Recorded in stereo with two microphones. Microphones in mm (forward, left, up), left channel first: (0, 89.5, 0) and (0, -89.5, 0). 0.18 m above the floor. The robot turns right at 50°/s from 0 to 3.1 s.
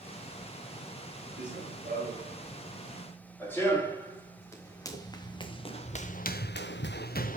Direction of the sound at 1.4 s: 80° right.